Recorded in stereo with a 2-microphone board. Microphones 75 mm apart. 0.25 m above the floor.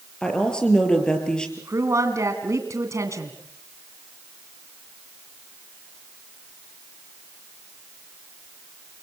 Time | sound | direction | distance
0.2 | a woman speaking | 10° left (ahead or behind) | 5 m
1.6 | a woman speaking | 45° right (ahead or behind) | 2.5 m